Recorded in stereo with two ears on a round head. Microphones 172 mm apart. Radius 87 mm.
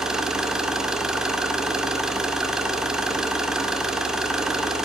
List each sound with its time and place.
0.0 s an engine running: 5° right (ahead or behind), 0.9 m